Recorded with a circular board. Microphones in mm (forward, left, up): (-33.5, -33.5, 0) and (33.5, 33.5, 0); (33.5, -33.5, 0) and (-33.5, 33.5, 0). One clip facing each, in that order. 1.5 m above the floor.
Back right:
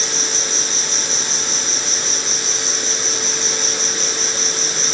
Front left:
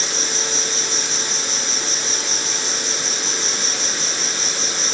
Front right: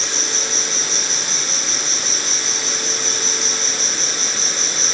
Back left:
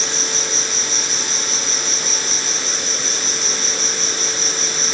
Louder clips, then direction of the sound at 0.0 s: Even, back left 1 dB; 85° left.